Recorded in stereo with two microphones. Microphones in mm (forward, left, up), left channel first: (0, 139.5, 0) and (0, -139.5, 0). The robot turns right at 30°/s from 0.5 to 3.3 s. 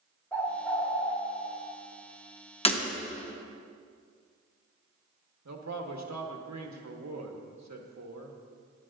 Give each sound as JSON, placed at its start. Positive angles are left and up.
{"t": 0.3, "sound": "a bird", "side_deg": 5, "distance_m": 1.7}
{"t": 2.6, "sound": "breaking glass", "side_deg": 20, "distance_m": 1.0}
{"t": 5.5, "sound": "a man speaking", "side_deg": -75, "distance_m": 1.3}